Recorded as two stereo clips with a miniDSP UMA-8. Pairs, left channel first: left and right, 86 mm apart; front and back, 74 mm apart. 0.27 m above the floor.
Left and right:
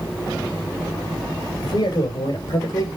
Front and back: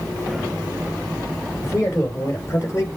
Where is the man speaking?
55° left, 5 m; by 2.9 s 50° left, 4 m.